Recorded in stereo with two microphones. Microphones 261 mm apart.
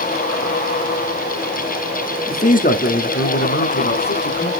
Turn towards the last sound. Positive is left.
turn(degrees=65)  # may be behind; listen again after turning